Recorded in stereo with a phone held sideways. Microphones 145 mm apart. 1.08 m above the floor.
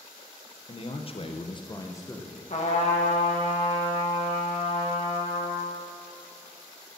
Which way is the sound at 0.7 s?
35° left (ahead or behind).